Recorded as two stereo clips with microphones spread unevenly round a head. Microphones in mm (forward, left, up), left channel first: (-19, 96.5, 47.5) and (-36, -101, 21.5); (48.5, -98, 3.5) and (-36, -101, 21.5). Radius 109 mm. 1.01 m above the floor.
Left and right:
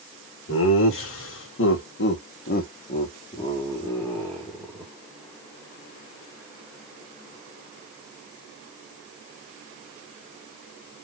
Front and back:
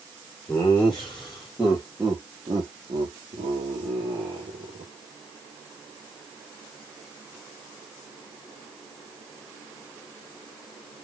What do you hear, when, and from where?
0.5 s laughter: 75° left, 1.8 m; by 4.9 s straight behind, 1.8 m